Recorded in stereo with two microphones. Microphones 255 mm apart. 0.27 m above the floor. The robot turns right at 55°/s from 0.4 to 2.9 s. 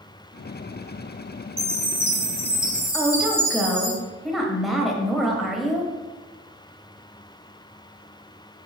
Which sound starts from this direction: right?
A chime, at 1.6 s.